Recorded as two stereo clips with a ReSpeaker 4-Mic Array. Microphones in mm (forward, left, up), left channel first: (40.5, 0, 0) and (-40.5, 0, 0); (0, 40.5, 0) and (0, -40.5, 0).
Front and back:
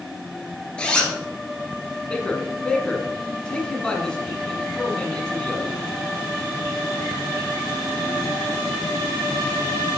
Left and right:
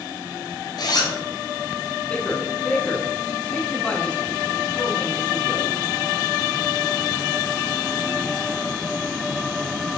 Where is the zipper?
75° left, 1.2 m.